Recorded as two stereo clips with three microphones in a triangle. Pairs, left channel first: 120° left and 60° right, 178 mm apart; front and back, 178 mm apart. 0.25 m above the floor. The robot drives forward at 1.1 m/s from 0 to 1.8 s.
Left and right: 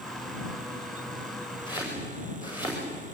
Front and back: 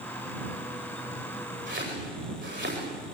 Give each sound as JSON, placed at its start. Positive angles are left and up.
{"t": 1.7, "sound": "chopping", "azimuth_deg": -175, "distance_m": 9.0}